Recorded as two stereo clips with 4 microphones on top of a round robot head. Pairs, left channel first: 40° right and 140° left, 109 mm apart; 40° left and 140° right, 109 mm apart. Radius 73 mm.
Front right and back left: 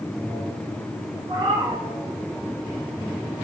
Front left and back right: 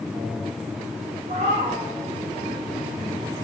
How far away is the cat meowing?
About 1.7 m.